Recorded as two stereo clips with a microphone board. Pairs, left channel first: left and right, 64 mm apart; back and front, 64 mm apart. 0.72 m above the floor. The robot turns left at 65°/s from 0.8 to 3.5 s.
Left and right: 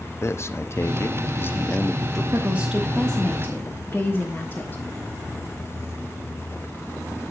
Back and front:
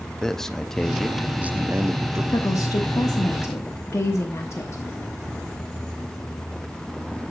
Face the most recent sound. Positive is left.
turn(degrees=140)